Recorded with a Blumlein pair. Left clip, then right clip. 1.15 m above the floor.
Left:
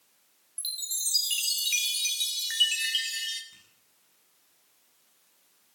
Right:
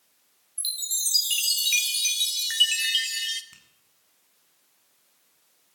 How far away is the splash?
No splash in this recording.